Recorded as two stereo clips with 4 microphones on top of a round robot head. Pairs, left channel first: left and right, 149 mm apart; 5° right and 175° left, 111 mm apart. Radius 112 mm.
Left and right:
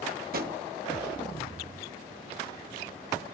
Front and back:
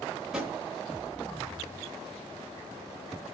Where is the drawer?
95° right, 0.9 m.